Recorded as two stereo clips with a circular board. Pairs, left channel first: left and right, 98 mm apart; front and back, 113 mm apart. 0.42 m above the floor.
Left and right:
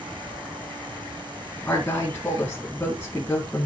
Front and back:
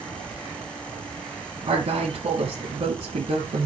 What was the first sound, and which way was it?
A woman speaking, 165° left.